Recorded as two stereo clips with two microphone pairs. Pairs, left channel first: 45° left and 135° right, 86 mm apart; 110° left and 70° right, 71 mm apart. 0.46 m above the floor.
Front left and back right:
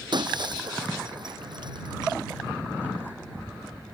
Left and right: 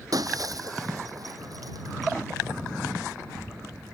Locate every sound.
0.1 s breaking glass: 105° right